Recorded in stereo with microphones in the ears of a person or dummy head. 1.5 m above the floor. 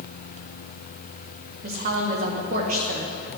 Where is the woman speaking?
55° right (ahead or behind), 2 m.